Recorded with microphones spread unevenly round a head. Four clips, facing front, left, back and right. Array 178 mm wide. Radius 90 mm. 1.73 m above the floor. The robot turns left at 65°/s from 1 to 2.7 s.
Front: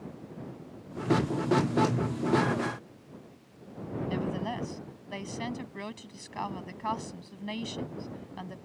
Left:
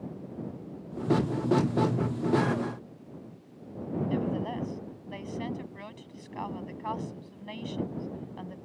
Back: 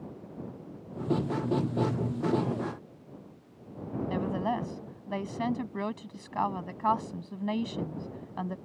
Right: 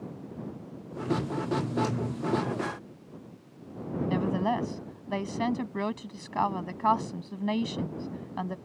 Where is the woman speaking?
110° right.